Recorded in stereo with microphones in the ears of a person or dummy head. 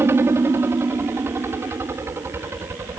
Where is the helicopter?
15° right (ahead or behind).